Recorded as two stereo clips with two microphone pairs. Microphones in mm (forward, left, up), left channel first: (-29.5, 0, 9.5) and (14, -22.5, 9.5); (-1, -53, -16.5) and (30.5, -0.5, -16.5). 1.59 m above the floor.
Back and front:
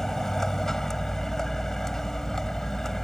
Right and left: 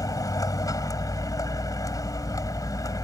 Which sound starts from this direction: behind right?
A vehicle, at 0.0 s.